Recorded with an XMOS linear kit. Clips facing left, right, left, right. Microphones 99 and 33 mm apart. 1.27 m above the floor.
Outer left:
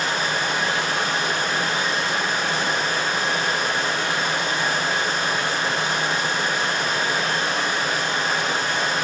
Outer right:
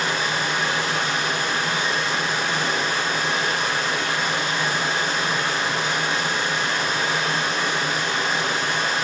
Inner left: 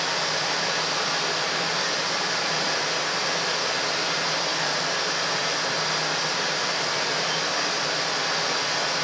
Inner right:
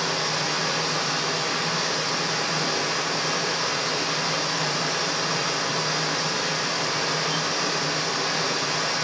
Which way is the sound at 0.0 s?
40° left (ahead or behind).